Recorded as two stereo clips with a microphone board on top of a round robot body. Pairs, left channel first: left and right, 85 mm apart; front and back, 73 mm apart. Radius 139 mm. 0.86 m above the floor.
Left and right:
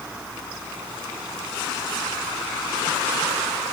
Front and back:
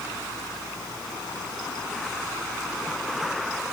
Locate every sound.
Only background noise.